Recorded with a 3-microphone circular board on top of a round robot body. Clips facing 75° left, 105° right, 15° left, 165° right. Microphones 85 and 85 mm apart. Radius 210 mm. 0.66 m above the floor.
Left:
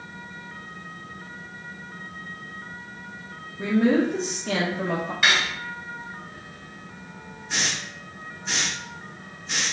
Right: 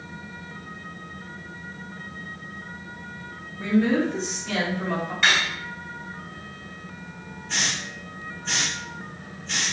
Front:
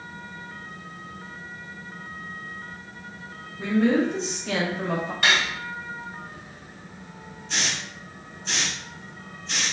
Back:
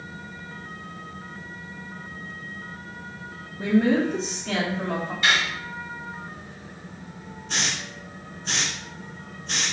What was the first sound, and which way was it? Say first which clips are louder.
A woman speaking: left 1 dB, back 1 dB; 130° left.